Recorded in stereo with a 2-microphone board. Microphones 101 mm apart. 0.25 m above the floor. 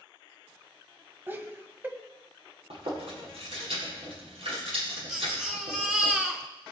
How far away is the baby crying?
About 1.9 m.